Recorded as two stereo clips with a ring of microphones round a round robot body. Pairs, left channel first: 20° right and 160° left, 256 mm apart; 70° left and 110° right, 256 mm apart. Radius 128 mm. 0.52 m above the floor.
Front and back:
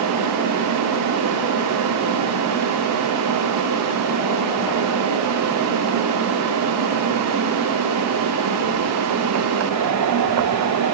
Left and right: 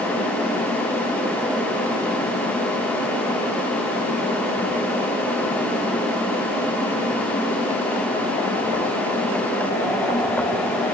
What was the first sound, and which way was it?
Only background noise.